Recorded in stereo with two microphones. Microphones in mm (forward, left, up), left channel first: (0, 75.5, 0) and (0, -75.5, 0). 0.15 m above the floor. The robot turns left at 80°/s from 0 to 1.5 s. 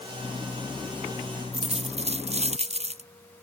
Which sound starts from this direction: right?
A dropped coin, at 1.5 s.